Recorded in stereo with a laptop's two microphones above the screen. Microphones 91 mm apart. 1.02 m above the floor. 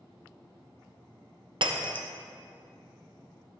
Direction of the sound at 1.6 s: 65° right (ahead or behind).